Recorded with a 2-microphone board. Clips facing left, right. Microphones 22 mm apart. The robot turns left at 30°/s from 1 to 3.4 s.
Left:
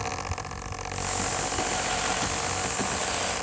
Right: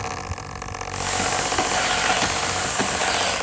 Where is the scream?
No scream in this recording.